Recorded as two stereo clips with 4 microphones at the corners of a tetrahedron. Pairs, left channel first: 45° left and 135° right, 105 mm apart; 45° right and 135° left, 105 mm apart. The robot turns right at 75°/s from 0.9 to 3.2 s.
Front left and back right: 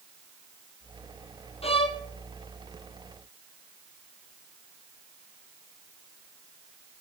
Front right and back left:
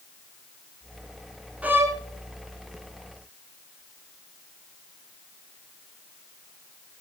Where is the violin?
60° left, 1.0 m; by 2.0 s 85° left, 1.0 m.